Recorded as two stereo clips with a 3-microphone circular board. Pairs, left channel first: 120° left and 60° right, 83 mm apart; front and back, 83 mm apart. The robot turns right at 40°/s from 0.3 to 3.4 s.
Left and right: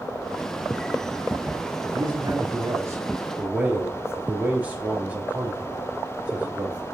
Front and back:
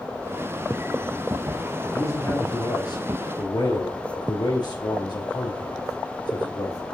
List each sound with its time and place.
1.9 s a man speaking: 45° right, 3 m; by 6.8 s 10° left, 3 m